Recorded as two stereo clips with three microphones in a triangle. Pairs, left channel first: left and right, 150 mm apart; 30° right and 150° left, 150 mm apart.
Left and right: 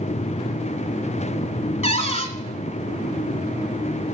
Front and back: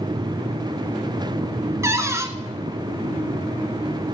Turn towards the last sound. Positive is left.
turn(degrees=90)